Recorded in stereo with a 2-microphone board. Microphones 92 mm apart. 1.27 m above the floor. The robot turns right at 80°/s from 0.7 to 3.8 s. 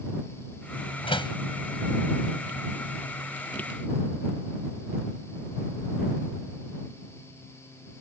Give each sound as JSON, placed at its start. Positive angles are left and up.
{"t": 1.0, "sound": "a door slam", "side_deg": 80}